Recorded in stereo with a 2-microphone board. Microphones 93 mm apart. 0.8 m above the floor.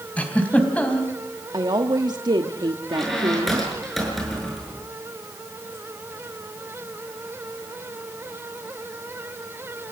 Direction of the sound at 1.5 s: 50° right (ahead or behind).